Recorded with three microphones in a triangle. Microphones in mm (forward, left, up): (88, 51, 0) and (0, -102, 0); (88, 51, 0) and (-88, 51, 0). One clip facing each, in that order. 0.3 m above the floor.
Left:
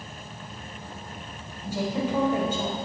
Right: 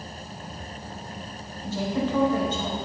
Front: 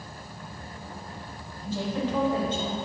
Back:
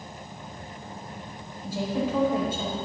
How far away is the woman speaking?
About 1.2 m.